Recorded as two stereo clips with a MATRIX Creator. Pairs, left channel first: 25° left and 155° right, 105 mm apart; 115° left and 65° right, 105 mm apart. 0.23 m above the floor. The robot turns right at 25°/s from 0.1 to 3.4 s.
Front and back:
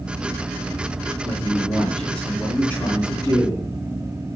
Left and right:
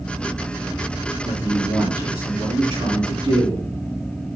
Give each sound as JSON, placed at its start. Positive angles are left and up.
{"t": 1.2, "sound": "a man speaking", "azimuth_deg": -80, "distance_m": 3.0}